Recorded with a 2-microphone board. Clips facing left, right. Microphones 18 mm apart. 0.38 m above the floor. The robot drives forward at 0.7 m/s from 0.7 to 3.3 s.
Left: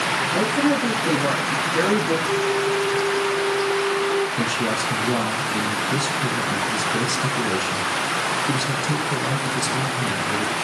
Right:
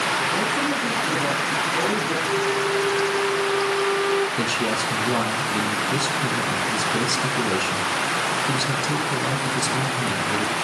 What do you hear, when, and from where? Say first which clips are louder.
0.3 s a woman speaking: left 3 dB; 55° left (ahead or behind), 5 m; by 2.2 s 45° left (ahead or behind), 5.5 m
2.3 s a flute: left 1 dB; 10° right (ahead or behind), 1.4 m; by 4.3 s 20° right (ahead or behind), 0.7 m
4.4 s a man speaking: even; 15° right (ahead or behind), 3.5 m